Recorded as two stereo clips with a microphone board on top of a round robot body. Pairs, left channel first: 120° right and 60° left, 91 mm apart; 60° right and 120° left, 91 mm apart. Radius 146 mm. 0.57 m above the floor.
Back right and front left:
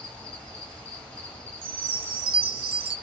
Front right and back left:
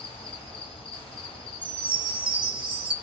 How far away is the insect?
About 1.0 m.